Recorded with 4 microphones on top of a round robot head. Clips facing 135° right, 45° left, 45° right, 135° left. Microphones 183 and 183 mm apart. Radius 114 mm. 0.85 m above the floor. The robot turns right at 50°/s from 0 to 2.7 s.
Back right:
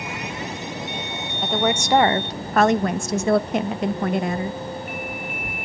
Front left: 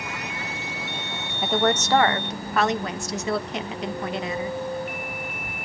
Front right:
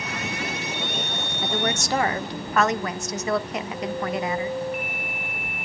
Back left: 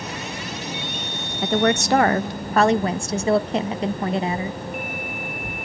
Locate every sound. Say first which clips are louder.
1.4 s a woman speaking: even, back left 8 dB; 130° left, 0.6 m; by 4.6 s 170° right, 0.6 m